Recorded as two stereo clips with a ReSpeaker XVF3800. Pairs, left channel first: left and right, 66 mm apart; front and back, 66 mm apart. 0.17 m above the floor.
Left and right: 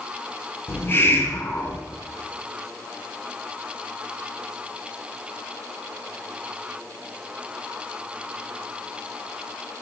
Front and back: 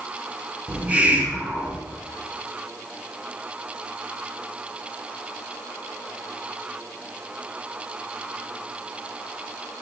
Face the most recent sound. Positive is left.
turn(degrees=125)